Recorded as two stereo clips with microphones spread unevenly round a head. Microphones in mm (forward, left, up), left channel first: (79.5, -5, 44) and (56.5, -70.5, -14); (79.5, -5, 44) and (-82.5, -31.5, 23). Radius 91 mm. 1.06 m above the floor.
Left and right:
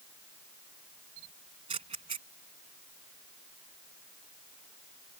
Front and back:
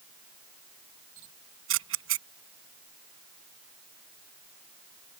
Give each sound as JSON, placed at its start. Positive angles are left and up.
{"t": 1.2, "sound": "a camera shutter", "azimuth_deg": -175}